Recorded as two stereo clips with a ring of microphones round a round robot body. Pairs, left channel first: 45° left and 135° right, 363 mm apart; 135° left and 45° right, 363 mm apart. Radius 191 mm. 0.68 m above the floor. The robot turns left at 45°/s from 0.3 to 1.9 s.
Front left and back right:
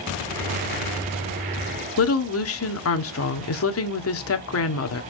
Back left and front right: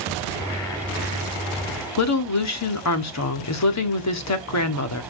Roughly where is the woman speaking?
Left.